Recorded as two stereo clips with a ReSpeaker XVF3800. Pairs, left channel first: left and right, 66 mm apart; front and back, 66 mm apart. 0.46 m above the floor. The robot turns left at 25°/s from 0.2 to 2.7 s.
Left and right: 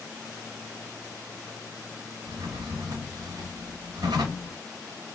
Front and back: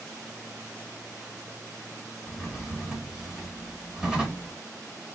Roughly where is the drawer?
Right.